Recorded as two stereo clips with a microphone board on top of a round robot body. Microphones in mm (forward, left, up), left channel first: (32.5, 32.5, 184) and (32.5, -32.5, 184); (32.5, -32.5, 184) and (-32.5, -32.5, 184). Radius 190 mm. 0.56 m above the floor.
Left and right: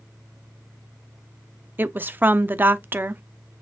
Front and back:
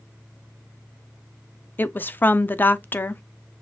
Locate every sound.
1.8 s a woman speaking: 45° right, 0.8 m